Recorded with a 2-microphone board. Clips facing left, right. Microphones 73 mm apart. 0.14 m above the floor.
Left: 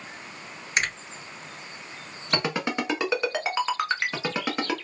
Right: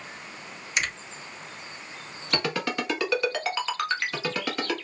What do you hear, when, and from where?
0.8 s a finger snap: 40° left (ahead or behind), 2 m
2.3 s a ringtone: 20° left (ahead or behind), 0.9 m